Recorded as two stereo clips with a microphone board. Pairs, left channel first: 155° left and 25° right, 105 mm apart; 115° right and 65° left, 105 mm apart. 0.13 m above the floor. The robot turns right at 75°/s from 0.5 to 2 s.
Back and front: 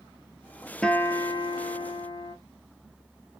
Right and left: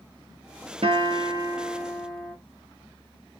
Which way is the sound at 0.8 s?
80° left.